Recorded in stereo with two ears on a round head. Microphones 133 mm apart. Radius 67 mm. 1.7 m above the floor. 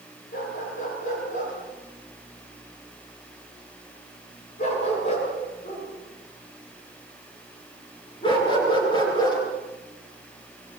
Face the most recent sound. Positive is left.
turn(degrees=30)  # may be behind; listen again after turning